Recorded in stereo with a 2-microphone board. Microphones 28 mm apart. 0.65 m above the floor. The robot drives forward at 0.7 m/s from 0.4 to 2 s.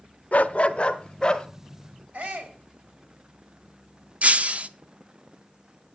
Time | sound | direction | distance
0.3 | a dog barking | 55° left (ahead or behind) | 0.6 m
2.1 | a shout | 70° right (ahead or behind) | 3 m
4.2 | breaking glass | 50° right (ahead or behind) | 0.5 m